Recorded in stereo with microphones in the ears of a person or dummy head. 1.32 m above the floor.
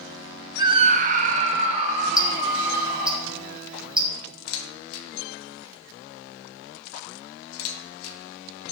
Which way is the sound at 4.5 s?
85° left.